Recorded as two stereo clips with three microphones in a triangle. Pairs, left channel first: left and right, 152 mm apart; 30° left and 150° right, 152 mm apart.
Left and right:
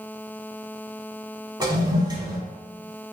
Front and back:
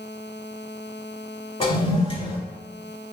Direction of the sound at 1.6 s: 30° right.